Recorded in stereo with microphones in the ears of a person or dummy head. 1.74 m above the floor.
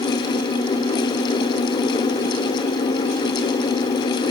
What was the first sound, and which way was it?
Only background noise.